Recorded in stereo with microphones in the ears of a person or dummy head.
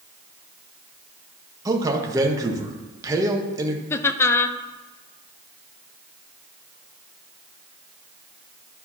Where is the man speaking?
20° right (ahead or behind), 1.1 m.